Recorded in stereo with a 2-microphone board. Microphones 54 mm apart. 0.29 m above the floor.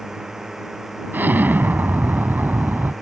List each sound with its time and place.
0.0 s a drone: 10° right (ahead or behind); by 3.0 s 5° right (ahead or behind)
1.1 s an explosion: 40° right (ahead or behind)